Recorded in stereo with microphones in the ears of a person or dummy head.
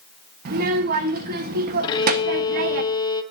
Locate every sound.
0.5 s a child speaking: 50° right (ahead or behind), 1.2 m
1.8 s a violin: 25° left (ahead or behind), 1.1 m